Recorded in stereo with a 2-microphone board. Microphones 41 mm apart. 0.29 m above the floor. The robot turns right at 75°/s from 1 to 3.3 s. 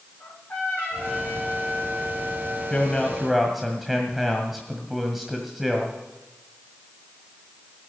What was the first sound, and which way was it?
A trumpet, 135° left.